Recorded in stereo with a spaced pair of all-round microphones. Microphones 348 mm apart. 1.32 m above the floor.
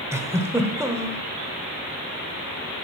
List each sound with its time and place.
0.1 s a giggle: 10° right (ahead or behind), 1.0 m